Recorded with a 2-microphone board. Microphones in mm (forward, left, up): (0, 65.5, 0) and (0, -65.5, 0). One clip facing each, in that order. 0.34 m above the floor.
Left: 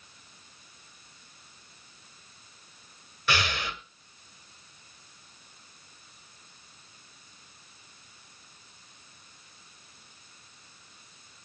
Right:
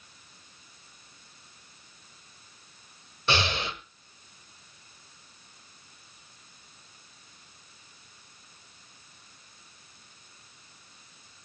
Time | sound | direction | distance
3.3 | breathing | 25° right (ahead or behind) | 1.5 m